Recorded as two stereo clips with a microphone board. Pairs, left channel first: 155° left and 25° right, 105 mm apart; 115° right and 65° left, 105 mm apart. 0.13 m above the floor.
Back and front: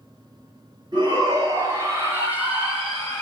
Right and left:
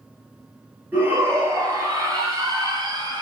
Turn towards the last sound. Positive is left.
turn(degrees=75)